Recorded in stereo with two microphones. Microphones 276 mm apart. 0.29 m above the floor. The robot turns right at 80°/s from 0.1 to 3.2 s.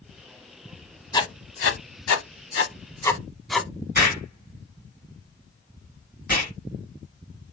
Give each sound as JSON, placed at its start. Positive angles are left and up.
{"t": 1.1, "sound": "writing", "side_deg": 15, "distance_m": 0.5}
{"t": 4.0, "sound": "an explosion", "side_deg": 35, "distance_m": 2.0}